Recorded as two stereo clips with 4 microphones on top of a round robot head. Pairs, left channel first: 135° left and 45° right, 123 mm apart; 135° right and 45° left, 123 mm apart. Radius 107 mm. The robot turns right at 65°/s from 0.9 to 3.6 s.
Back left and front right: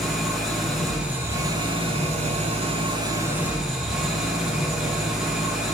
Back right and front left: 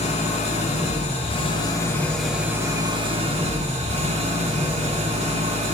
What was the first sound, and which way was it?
An engine running, 135° right.